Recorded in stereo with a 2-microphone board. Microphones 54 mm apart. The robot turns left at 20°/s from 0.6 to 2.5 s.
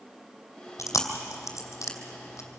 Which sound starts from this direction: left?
Chewing, at 0.8 s.